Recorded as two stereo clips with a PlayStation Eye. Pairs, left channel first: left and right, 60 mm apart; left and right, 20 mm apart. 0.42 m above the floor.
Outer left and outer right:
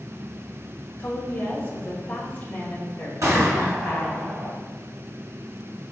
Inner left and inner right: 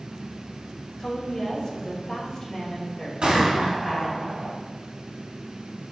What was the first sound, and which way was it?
A woman speaking, 25° left (ahead or behind).